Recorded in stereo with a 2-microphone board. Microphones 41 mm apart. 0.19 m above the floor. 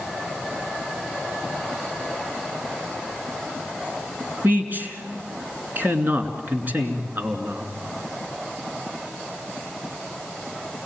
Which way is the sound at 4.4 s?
50° right (ahead or behind).